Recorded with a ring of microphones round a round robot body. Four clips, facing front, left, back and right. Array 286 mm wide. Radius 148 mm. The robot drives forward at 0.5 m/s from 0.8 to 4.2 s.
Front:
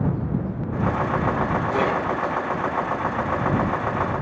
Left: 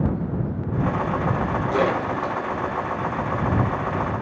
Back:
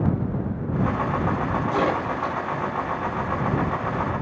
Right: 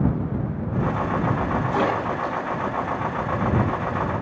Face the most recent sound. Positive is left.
turn(degrees=80)